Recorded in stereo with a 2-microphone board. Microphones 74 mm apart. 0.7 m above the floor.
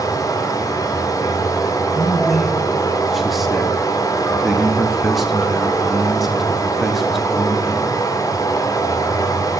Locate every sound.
0.0 s running water: 50° left (ahead or behind), 1.5 m
1.9 s a man speaking: centre (ahead or behind), 0.9 m